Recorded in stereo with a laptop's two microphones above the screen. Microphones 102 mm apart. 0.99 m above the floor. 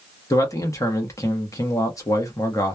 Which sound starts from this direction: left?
A man speaking, at 0.3 s.